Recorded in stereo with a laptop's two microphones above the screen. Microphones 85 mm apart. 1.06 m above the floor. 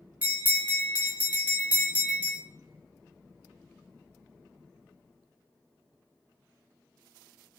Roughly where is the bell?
Centre.